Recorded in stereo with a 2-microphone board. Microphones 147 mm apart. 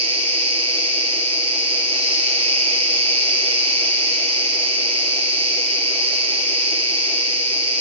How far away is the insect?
About 3.5 m.